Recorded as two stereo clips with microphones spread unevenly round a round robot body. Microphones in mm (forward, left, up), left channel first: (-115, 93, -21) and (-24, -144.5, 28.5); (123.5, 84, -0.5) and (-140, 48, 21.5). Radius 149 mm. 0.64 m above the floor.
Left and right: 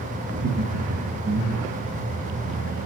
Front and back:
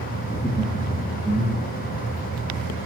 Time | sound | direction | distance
0.3 | laughter | 55° right | 0.7 m